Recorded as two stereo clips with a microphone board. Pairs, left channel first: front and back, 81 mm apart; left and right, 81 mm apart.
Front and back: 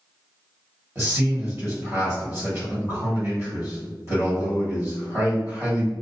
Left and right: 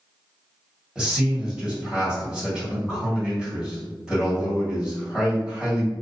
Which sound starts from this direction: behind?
A man speaking, at 0.9 s.